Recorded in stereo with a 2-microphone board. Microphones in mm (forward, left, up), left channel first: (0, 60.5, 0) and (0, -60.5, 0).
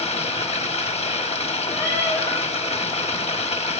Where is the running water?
60° left (ahead or behind), 1.3 m.